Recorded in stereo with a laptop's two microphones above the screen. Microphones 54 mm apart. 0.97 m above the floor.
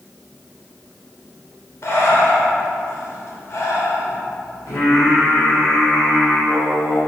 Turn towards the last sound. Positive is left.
turn(degrees=60)  # may be behind; listen again after turning